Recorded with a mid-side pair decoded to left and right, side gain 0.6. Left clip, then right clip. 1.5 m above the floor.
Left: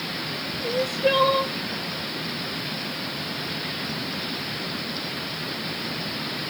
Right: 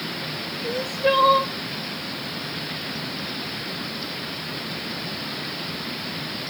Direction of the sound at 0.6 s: Straight ahead.